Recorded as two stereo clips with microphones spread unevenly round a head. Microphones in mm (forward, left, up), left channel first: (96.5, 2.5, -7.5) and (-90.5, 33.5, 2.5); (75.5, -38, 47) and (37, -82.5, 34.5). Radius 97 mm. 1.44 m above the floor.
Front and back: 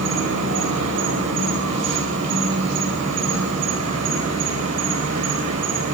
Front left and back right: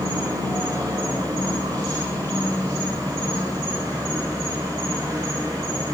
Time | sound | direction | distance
0.0 | an insect | 175° left | 8.5 m